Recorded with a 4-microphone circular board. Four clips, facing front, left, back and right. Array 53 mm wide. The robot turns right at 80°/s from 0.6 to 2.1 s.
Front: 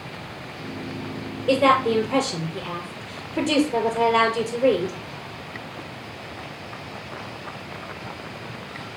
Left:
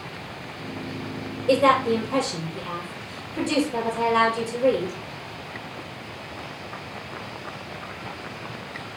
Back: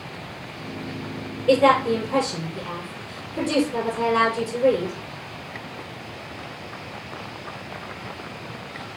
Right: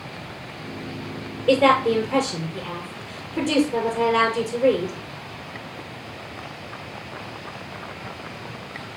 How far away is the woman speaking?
About 5.5 m.